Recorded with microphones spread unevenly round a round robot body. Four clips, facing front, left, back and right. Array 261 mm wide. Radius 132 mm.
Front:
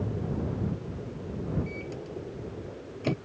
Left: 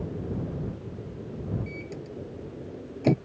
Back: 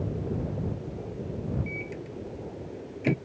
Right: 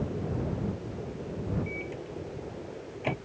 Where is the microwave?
105° left.